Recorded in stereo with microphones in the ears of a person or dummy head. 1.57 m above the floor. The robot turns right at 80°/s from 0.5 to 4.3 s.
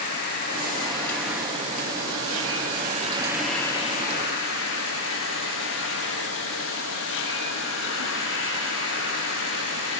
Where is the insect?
120° left, 9 m; by 10.0 s 65° left, 9 m.